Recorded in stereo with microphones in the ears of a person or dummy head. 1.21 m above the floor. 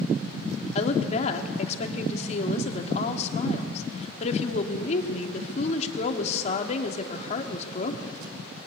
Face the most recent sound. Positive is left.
turn(degrees=45)  # may be behind; listen again after turning